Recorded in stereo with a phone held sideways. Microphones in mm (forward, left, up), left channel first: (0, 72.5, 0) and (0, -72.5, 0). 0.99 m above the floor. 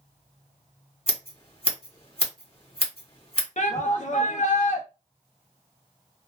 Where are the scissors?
45° left (ahead or behind), 1.3 m.